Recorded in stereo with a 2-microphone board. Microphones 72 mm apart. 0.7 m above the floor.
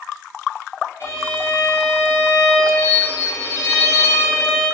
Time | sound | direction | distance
1.0 | a violin | 40° left (ahead or behind) | 1.4 m